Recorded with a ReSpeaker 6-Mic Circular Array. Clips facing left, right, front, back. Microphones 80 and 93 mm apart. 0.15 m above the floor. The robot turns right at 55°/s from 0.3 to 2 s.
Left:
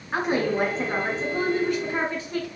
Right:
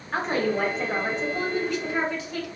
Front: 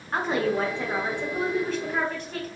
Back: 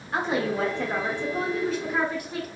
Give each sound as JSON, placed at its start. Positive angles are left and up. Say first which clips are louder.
{"t": 0.1, "sound": "a woman speaking", "louder": "left 1 dB, front 1 dB", "azimuth_deg": 15, "distance_m": 1.4}